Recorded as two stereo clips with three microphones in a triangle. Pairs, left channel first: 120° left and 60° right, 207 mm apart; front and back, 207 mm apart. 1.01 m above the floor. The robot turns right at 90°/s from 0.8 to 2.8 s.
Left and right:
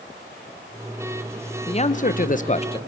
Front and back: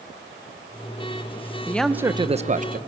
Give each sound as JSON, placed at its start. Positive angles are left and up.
{"t": 1.7, "sound": "a man speaking", "azimuth_deg": 75, "distance_m": 0.6}